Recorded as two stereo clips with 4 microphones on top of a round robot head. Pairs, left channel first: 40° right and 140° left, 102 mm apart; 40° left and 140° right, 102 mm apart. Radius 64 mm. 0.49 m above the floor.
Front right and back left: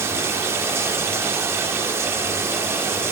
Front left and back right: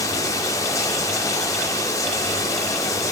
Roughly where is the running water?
Left.